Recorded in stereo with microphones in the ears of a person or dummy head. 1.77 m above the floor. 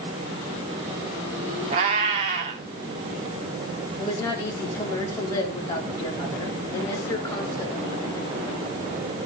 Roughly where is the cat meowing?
Right.